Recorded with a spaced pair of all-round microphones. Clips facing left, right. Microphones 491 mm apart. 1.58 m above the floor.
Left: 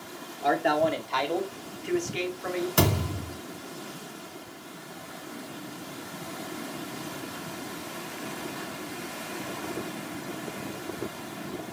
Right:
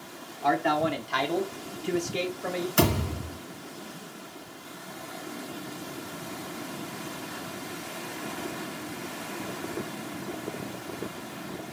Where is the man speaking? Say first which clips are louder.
Left 1 dB; 20° right (ahead or behind), 0.9 m; by 2.7 s 55° right (ahead or behind), 0.8 m.